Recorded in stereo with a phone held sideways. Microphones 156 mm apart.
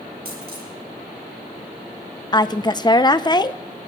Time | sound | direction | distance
0.2 | a dropped coin | 80° right | 5.5 m
2.3 | a woman speaking | 30° left (ahead or behind) | 0.5 m